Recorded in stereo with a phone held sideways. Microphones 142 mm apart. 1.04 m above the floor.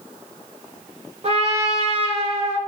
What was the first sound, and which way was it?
A trumpet, 45° right (ahead or behind).